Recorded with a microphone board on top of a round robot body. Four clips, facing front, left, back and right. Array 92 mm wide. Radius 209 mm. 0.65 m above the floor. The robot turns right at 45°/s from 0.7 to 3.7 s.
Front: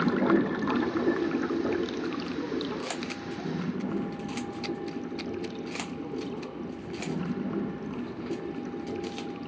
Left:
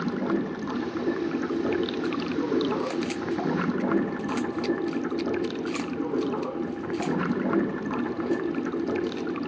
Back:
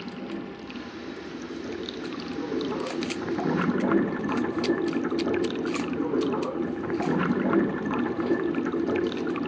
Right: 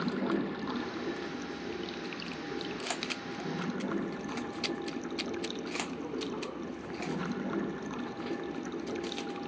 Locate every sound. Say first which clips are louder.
0.0 s running water: left 5 dB, front 11 dB; 15° left, 0.7 m; by 9.5 s 150° left, 0.7 m